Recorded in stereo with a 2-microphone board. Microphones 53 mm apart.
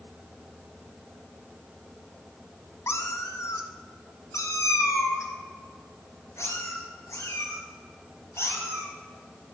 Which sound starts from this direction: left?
A cat meowing, at 2.9 s.